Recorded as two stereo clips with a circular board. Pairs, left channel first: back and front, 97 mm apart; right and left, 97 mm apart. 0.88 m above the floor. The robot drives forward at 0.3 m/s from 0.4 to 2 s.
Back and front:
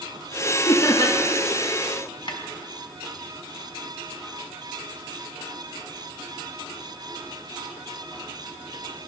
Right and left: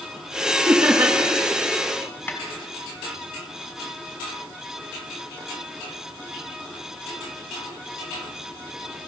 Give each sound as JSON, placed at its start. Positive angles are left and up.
{"t": 0.7, "sound": "laughter", "azimuth_deg": 140, "distance_m": 0.9}
{"t": 2.3, "sound": "a snare drum", "azimuth_deg": -155, "distance_m": 1.3}